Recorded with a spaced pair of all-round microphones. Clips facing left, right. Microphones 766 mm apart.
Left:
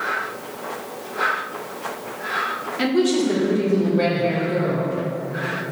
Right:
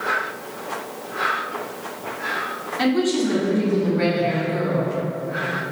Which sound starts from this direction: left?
A woman speaking, at 2.8 s.